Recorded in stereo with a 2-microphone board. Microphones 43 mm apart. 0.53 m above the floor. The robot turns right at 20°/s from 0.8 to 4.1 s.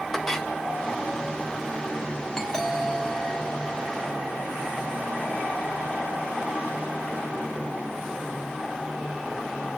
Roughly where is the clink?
Centre.